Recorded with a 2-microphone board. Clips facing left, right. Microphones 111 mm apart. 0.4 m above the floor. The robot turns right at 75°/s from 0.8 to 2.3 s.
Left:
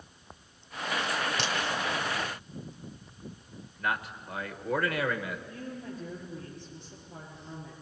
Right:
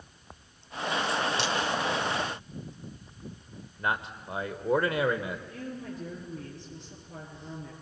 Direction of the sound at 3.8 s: 25° right (ahead or behind).